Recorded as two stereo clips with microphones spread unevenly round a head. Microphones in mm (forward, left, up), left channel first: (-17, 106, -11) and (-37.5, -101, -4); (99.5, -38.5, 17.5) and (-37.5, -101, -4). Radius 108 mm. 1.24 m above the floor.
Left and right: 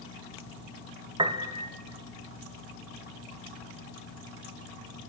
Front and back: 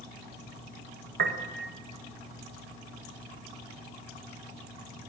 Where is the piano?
165° right, 1.5 m.